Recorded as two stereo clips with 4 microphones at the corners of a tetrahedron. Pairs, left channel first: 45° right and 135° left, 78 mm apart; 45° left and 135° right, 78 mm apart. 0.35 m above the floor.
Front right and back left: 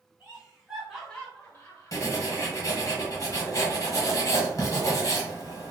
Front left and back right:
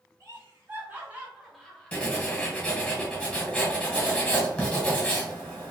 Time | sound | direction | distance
0.2 | laughter | 160° right | 1.2 m
1.9 | writing | 25° right | 1.2 m